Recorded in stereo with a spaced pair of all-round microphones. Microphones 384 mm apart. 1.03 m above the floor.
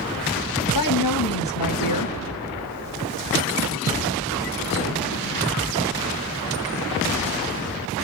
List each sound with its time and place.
0.7 s a woman speaking: 60° left (ahead or behind), 1.4 m